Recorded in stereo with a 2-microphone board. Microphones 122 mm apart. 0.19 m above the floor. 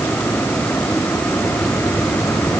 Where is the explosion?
No explosion in this recording.